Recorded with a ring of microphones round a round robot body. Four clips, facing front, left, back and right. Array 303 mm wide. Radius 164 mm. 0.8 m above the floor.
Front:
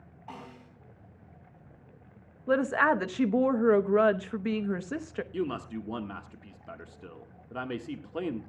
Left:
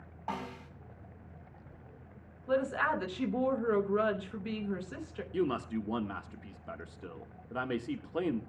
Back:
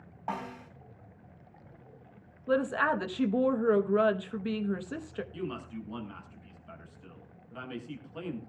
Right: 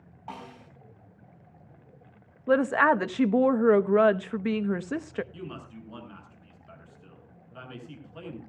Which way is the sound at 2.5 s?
70° right.